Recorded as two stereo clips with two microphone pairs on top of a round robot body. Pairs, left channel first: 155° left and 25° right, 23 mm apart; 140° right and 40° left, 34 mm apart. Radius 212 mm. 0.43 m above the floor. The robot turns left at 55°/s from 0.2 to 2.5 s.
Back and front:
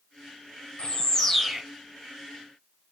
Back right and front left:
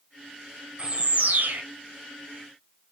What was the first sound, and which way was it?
A bird, 105° left.